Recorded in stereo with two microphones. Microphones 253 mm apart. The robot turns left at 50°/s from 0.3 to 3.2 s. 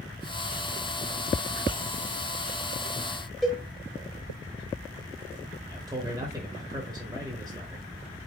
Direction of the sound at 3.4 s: Centre (ahead or behind).